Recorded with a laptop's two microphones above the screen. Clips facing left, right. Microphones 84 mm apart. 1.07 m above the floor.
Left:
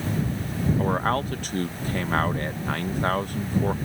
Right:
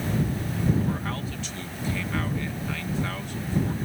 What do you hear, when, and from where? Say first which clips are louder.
0.8 s a man speaking: left 6 dB; 50° left (ahead or behind)